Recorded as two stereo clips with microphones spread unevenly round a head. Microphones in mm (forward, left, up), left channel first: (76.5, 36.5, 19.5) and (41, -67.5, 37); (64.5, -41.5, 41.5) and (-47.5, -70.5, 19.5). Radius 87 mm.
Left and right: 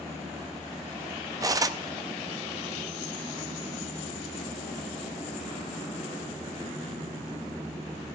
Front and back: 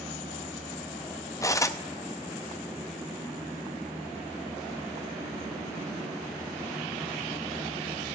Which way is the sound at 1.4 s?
50° right.